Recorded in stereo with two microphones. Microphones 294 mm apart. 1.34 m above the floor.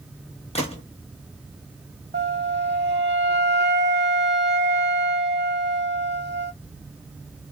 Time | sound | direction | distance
0.6 | a gunshot | 20° left (ahead or behind) | 0.9 m
2.1 | a flute | 35° right (ahead or behind) | 0.6 m